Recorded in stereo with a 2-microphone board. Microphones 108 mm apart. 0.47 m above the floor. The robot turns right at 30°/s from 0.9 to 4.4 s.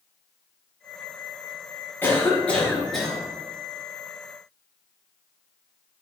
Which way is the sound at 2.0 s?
145° left.